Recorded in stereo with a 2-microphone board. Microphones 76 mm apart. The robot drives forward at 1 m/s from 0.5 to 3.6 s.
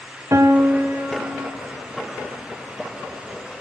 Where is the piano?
45° right (ahead or behind), 0.9 m; by 1.5 s 20° right (ahead or behind), 1.7 m.